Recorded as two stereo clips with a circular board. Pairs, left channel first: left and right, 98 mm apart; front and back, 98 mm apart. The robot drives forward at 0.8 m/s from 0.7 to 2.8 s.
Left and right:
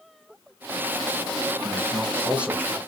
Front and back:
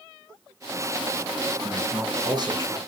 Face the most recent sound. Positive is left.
turn(degrees=-165)